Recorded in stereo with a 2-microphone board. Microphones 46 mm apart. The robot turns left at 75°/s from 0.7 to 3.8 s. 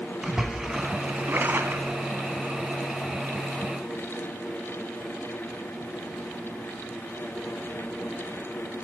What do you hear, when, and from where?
0.2 s a splash: 15° right, 0.8 m; by 2.0 s 115° right, 0.8 m